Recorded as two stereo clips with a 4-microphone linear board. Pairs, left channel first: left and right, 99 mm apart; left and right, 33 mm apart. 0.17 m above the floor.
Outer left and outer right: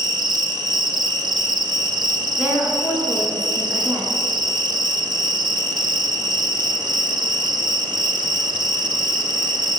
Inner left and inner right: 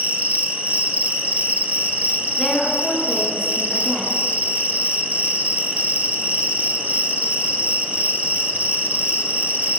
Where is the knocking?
I don't hear knocking.